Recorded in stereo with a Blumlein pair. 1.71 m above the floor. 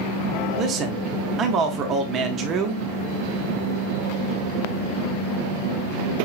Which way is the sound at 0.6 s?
30° right.